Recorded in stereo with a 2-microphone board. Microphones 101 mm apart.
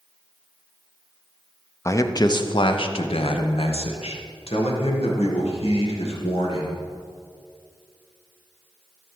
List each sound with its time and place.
1.9 s a man speaking: 30° left (ahead or behind), 0.8 m; by 6.7 s 80° left, 3 m